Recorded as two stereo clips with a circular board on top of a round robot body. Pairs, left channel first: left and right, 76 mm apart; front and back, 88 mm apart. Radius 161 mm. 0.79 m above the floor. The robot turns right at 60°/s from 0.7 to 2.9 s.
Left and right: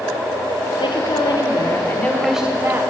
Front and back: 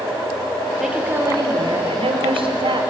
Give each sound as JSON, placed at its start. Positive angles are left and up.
{"t": 0.8, "sound": "a woman speaking", "azimuth_deg": 95, "distance_m": 3.5}